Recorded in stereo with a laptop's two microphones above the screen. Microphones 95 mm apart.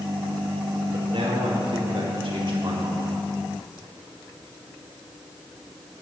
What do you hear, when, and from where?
0.9 s a man speaking: 75° right (ahead or behind), 2.5 m; by 3.2 s 50° right (ahead or behind), 1.6 m